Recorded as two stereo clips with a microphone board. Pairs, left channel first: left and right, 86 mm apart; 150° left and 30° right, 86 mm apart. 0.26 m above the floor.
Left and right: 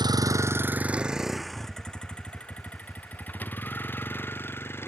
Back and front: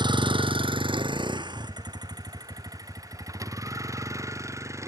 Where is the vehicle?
55° right; by 4.9 s 25° left.